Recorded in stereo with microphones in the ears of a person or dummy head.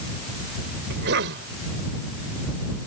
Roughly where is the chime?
No chime in this recording.